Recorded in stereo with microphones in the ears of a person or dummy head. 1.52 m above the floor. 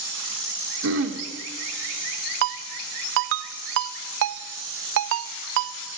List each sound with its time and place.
0.8 s throat clearing: 70° right (ahead or behind), 2 m
2.4 s a ringtone: 60° right (ahead or behind), 0.8 m